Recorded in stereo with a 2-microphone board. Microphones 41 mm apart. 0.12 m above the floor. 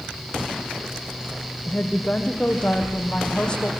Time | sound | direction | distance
1.7 | a woman speaking | 25° left (ahead or behind) | 4.5 m